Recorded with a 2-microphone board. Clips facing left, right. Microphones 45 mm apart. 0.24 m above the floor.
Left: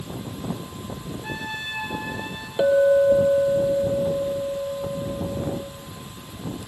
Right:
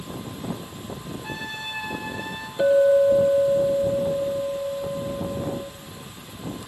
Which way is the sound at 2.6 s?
85° left.